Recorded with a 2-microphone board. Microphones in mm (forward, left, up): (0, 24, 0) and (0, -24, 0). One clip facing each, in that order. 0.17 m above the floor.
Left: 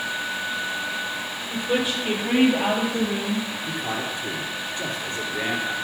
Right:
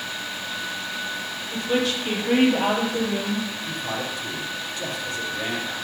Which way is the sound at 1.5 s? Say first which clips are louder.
Even; 10° left (ahead or behind).